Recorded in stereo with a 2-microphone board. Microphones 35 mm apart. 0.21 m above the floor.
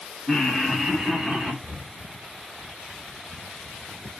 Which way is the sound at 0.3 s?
5° left (ahead or behind).